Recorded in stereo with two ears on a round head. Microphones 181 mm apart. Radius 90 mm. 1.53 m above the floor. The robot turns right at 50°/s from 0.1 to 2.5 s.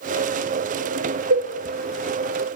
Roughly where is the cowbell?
Right.